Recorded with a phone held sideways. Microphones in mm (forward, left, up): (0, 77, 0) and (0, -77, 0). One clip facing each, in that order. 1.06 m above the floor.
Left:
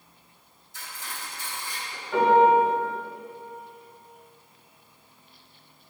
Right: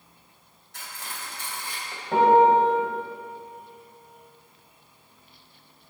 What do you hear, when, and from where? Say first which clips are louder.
0.7 s cutlery clinking: even; 70° right (ahead or behind), 3.5 m
2.1 s a piano: right 1 dB; 75° right (ahead or behind), 3.5 m